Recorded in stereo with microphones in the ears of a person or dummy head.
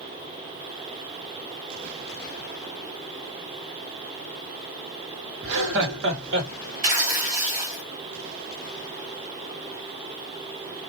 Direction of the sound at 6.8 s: 45° right (ahead or behind).